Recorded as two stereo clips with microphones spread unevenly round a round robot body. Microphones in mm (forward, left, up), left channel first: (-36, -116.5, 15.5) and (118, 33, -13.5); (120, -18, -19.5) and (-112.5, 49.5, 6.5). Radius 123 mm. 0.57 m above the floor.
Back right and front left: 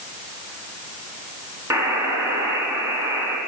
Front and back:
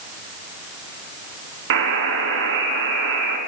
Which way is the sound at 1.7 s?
125° left.